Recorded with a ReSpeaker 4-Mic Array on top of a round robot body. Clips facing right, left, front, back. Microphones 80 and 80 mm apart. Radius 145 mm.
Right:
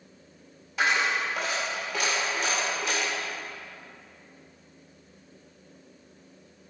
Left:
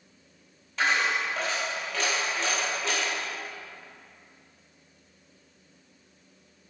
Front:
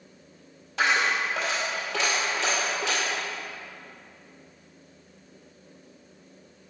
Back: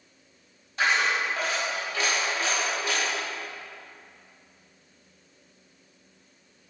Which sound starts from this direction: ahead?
A dropped coin, at 0.8 s.